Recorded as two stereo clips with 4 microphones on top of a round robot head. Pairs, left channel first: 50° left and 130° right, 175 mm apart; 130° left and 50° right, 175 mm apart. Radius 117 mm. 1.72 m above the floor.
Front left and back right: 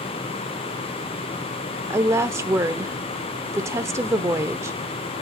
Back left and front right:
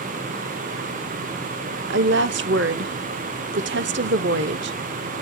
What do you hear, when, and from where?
1.9 s a woman speaking: 60° right, 0.6 m